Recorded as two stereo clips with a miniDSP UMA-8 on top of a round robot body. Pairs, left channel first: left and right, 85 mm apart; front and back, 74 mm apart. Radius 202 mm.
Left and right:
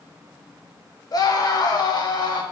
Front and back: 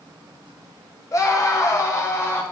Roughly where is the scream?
Ahead left.